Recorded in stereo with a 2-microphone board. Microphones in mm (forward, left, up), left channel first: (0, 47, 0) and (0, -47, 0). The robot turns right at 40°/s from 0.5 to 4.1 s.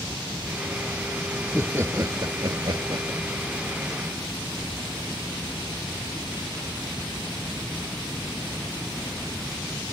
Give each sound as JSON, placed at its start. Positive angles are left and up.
{"t": 1.4, "sound": "laughter", "azimuth_deg": -160}